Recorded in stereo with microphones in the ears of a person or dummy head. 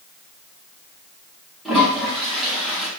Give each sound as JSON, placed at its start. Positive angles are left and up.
{"t": 1.6, "sound": "a toilet flushing", "side_deg": 0, "distance_m": 1.3}